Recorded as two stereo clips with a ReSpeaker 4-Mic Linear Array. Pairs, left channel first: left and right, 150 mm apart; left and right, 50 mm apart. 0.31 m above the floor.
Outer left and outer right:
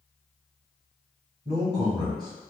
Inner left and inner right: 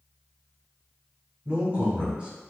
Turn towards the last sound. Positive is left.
turn(degrees=-30)  # may be behind; listen again after turning